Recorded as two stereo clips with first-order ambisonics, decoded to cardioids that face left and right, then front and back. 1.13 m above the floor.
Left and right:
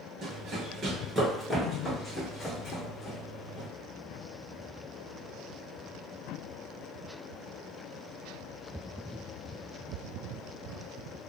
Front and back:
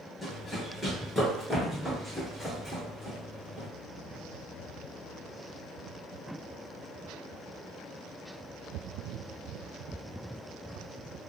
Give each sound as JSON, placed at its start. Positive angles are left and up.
{"t": 0.2, "sound": "running footsteps", "azimuth_deg": -70, "distance_m": 1.3}